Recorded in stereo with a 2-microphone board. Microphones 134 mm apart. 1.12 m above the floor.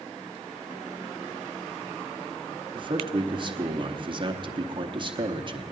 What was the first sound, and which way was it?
A man speaking, 40° right (ahead or behind).